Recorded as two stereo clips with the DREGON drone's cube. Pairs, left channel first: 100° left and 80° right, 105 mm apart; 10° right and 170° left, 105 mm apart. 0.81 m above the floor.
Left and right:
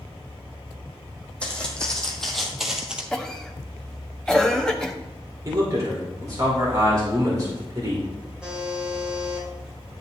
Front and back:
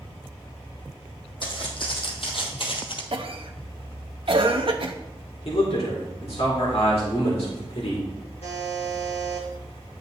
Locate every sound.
1.4 s footsteps: 20° left, 2.5 m; by 3.0 s straight ahead, 1.4 m
3.1 s a cough: straight behind, 0.7 m
5.5 s a man speaking: 25° right, 2.5 m
8.4 s a buzzer: 5° left, 3 m